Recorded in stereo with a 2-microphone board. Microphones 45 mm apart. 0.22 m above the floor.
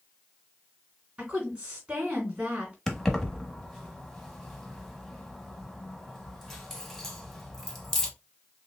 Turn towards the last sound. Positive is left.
turn(degrees=10)  # may be behind; listen again after turning